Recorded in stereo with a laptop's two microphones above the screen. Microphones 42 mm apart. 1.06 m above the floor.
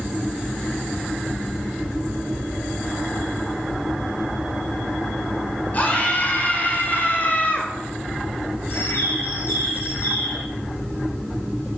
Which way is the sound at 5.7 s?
35° left (ahead or behind).